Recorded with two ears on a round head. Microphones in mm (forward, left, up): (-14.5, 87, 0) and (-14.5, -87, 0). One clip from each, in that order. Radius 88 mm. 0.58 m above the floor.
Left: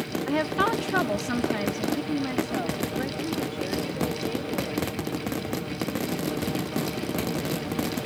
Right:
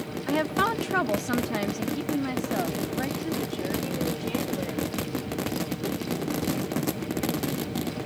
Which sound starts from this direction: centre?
A woman speaking, at 0.3 s.